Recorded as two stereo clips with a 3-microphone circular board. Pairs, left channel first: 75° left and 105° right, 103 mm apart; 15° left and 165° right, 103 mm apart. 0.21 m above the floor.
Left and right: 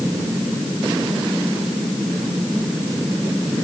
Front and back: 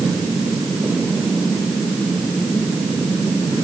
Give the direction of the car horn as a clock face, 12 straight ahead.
I don't hear a car horn.